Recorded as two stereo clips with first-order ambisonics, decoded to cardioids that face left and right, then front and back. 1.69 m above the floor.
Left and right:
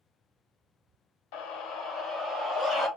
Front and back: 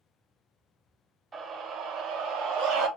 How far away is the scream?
About 0.7 m.